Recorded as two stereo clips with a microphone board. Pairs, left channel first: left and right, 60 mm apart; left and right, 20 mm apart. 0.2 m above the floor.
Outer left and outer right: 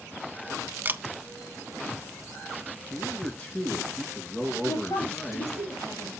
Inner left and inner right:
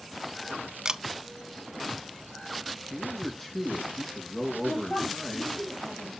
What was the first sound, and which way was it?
A camera shutter, 35° right (ahead or behind).